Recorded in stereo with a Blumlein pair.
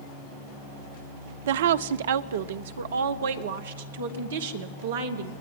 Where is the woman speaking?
60° right, 0.6 m; by 5.3 s 65° right, 3 m.